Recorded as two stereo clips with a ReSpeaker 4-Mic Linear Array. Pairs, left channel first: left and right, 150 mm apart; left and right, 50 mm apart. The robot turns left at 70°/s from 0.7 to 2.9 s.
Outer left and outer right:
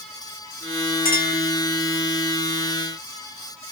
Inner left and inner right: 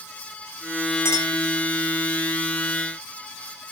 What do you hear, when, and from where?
1.1 s a clink: 70° left (ahead or behind), 3.5 m; by 1.4 s 80° left, 3.5 m